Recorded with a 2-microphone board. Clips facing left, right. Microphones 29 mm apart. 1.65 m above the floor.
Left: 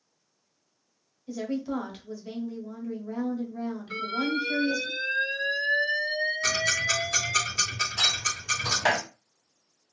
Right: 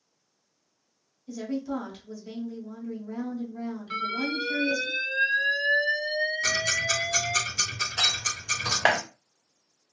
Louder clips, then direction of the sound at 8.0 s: Even; 55° right (ahead or behind).